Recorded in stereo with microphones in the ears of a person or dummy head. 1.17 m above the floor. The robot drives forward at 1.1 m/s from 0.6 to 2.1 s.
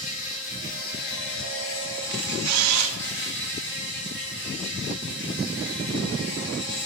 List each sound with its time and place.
0.0 s an insect: 45° left (ahead or behind), 1.7 m; by 6.9 s 55° left (ahead or behind), 1.4 m
2.1 s a camera shutter: 85° right, 0.6 m; by 2.9 s 80° right, 0.6 m